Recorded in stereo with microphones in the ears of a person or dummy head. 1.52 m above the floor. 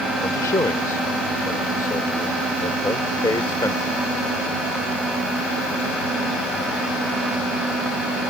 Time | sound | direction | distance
0.2 | a man speaking | 20° left (ahead or behind) | ?